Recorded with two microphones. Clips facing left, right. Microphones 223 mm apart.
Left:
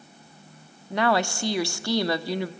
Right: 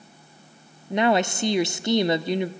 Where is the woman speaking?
20° right (ahead or behind), 0.7 m.